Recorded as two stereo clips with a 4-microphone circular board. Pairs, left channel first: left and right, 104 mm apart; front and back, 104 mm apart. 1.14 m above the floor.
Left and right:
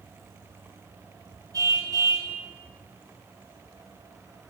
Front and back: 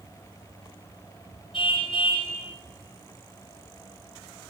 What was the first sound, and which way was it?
A car horn, 35° right.